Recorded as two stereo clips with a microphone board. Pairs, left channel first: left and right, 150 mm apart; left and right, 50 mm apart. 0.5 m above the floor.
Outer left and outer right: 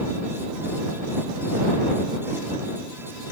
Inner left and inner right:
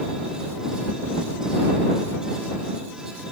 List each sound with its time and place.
Only background noise.